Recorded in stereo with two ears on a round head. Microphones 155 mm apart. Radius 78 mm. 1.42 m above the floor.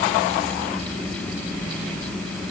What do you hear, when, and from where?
Only background noise.